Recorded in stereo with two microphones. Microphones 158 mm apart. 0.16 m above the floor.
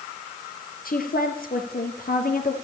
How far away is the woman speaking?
About 3 m.